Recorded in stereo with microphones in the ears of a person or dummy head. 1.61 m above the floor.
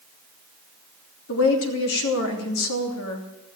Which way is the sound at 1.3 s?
80° left.